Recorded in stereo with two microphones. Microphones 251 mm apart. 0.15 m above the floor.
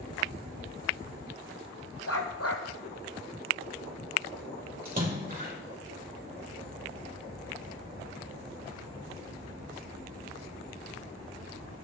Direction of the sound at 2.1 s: 65° left (ahead or behind).